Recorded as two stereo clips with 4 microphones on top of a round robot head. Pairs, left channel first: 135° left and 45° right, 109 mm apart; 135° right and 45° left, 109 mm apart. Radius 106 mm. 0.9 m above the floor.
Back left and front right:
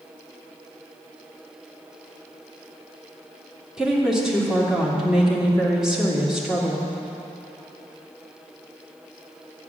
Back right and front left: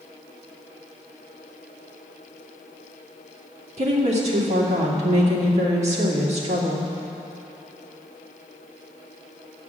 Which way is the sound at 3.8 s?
40° left.